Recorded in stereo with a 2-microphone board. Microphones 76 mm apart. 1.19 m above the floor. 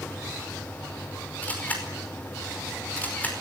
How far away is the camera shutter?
About 5 m.